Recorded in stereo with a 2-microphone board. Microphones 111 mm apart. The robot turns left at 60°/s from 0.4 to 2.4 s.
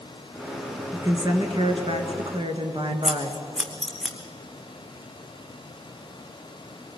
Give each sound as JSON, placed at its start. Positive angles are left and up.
{"t": 0.9, "sound": "a woman speaking", "azimuth_deg": -25, "distance_m": 2.5}
{"t": 3.0, "sound": "scissors", "side_deg": 0, "distance_m": 2.5}